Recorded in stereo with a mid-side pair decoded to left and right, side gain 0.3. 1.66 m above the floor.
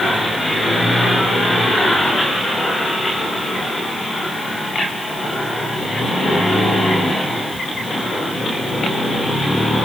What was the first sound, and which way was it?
Only background noise.